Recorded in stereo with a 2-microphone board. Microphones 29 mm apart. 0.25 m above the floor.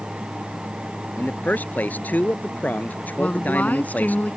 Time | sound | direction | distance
1.2 | a man speaking | 70° left (ahead or behind) | ?
3.2 | a woman speaking | 60° left (ahead or behind) | ?